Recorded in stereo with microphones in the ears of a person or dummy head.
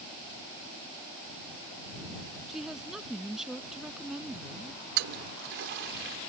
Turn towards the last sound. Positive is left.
turn(degrees=-55)  # may be behind; listen again after turning